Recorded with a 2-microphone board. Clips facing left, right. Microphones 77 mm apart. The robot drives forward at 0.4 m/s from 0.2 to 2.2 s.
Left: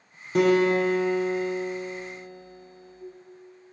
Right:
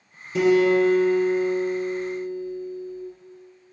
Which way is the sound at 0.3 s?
60° left (ahead or behind).